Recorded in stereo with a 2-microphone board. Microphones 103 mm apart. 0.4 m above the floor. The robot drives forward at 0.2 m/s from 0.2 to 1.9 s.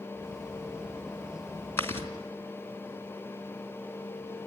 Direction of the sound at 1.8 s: 20° left (ahead or behind).